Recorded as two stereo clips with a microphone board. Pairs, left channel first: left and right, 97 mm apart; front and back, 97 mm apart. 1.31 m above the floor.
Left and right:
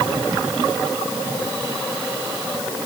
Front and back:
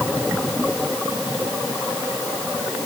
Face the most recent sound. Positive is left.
No sound to turn to.